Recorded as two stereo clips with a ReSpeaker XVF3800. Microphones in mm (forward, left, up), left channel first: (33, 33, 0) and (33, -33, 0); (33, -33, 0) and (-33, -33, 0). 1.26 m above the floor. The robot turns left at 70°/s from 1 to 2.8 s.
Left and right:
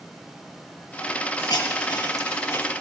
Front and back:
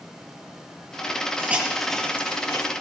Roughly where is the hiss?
Behind left.